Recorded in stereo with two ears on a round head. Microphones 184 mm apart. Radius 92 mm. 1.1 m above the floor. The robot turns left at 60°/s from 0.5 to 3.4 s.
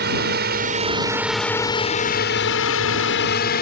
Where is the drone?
50° right (ahead or behind); by 3.6 s 50° left (ahead or behind).